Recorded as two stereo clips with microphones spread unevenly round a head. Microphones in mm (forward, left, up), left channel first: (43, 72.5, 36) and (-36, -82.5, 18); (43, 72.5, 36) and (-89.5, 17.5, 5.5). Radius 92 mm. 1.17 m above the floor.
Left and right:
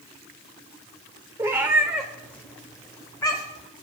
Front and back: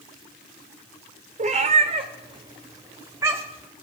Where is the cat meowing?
165° left, 1.2 m; by 3.7 s 125° left, 2 m.